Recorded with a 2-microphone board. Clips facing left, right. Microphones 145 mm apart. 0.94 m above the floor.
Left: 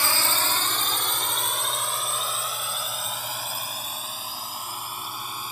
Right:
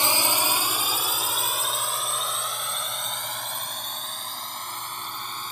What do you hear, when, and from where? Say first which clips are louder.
0.0 s a drone: right 2 dB; 20° right (ahead or behind); by 5.5 s 10° left (ahead or behind)